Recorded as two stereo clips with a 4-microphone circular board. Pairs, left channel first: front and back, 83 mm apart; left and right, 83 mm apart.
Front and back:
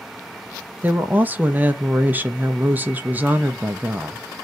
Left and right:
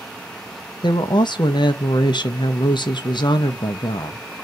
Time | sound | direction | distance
0.8 | a woman speaking | 115° left | 0.6 m